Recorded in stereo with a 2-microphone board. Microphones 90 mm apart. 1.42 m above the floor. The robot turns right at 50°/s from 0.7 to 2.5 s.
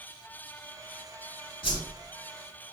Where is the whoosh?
70° left (ahead or behind), 1.9 m; by 1.8 s 65° left (ahead or behind), 1.9 m.